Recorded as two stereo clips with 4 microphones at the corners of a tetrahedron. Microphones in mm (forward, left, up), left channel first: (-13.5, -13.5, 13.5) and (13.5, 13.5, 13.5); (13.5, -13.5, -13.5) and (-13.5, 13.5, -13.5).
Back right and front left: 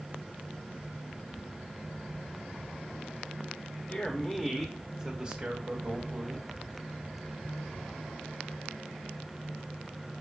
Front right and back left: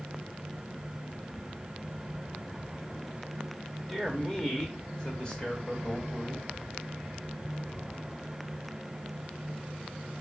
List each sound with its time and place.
3.9 s a man speaking: 105° right, 1.0 m; by 6.5 s 15° left, 1.6 m